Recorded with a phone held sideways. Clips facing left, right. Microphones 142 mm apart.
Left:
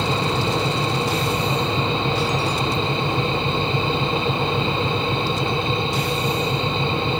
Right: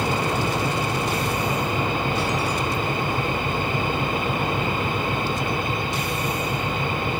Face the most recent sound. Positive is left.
turn(degrees=25)  # may be behind; listen again after turning